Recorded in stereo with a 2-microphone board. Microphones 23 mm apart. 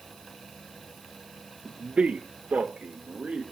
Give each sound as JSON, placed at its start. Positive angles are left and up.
{"t": 1.6, "sound": "a man speaking", "side_deg": -45, "distance_m": 1.0}